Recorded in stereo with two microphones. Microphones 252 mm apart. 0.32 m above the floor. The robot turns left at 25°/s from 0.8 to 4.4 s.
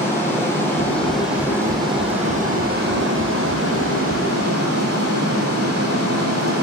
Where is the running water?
10° left, 3 m; by 6.6 s 80° right, 3 m.